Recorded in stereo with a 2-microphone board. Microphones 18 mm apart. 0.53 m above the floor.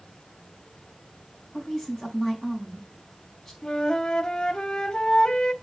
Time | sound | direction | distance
1.5 | a woman speaking | 5° right (ahead or behind) | 4.5 m
3.6 | a flute | 45° left (ahead or behind) | 1.1 m